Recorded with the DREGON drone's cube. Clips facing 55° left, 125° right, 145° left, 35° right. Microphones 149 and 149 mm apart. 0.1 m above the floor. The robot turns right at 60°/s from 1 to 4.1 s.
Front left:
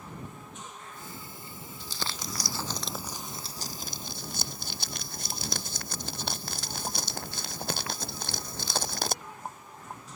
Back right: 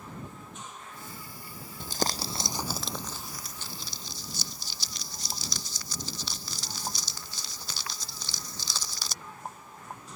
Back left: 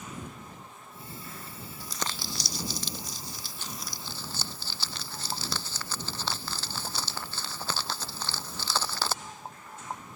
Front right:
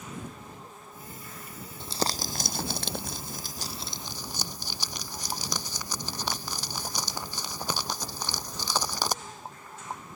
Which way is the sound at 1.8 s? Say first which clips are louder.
Back right 8 dB, front right 7 dB; 100° right.